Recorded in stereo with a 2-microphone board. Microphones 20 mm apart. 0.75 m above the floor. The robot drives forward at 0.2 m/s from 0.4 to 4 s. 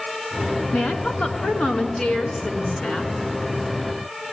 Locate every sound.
0.7 s a woman speaking: 80° left, 7 m